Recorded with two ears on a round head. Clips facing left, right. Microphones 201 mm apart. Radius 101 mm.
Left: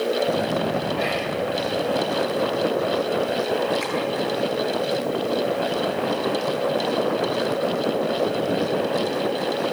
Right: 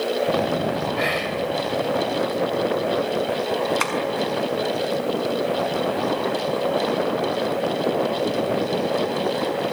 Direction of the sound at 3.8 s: 80° right.